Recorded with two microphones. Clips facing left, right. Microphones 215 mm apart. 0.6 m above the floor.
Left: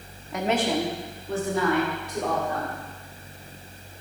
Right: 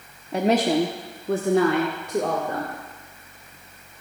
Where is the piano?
No piano in this recording.